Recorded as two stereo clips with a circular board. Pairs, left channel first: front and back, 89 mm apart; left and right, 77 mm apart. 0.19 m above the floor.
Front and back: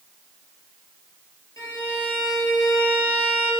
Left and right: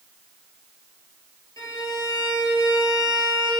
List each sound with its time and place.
1.6 s a violin: 50° left, 1.3 m